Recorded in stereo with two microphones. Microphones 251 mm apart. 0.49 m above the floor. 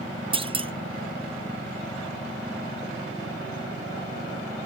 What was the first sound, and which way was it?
A clunk, 20° right (ahead or behind).